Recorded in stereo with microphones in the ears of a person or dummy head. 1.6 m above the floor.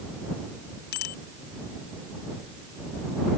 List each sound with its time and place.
0.9 s a bicycle bell: 65° left (ahead or behind)